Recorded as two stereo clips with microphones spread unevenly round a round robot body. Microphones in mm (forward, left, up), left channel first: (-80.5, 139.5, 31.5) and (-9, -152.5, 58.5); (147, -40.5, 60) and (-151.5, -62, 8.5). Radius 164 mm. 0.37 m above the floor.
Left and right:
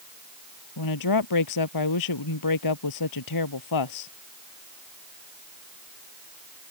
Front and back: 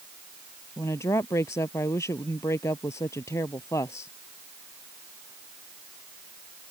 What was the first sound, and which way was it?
A woman speaking, 85° left.